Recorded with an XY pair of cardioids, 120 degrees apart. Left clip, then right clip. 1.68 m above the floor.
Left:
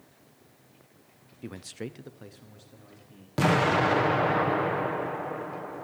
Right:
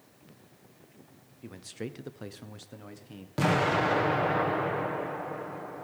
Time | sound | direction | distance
1.4 | a man speaking | 35° left | 0.8 m
3.4 | an explosion | 20° left | 1.1 m